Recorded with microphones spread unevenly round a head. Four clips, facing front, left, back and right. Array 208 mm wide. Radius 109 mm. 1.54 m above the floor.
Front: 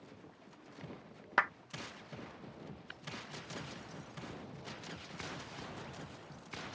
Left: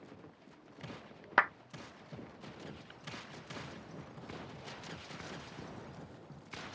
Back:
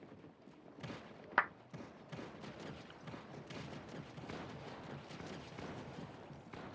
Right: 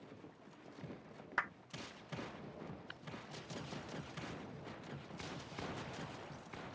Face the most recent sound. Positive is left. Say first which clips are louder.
# right 1 dB, front 4 dB
turn(degrees=-25)